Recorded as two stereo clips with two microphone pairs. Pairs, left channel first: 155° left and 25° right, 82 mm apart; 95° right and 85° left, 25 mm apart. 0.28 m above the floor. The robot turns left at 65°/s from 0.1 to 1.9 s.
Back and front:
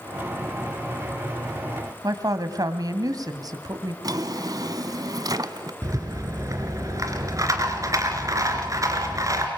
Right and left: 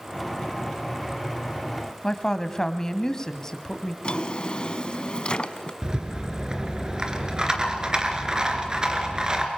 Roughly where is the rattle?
Ahead left.